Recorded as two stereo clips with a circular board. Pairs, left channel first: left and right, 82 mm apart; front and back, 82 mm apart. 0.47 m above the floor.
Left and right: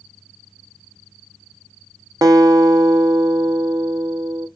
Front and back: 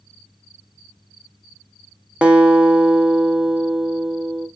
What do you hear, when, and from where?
2.2 s a guitar: 110° right, 1.4 m